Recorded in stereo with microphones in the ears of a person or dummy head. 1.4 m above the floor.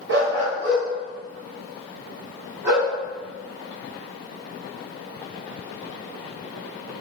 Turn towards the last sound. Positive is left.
turn(degrees=-15)  # may be behind; listen again after turning